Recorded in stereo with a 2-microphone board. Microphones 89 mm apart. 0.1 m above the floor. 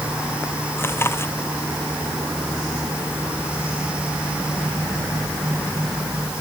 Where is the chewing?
30° left (ahead or behind).